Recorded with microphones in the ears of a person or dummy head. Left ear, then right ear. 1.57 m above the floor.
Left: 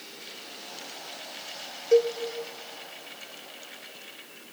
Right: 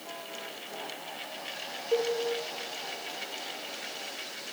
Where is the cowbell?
55° left (ahead or behind), 0.7 m.